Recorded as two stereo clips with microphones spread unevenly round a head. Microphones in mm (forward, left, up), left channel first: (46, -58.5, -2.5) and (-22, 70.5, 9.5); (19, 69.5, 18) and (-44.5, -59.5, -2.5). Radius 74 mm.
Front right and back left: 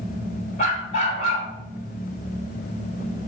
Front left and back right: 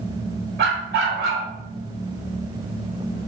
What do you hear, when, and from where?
0.6 s a dog barking: 100° right, 1.6 m